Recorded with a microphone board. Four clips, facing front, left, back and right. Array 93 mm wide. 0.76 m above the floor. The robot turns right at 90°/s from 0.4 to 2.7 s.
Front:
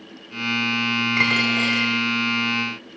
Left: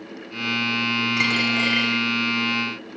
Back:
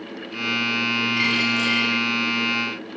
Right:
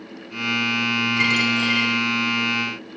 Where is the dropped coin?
15° left, 7.5 m; by 1.9 s 80° left, 7.5 m.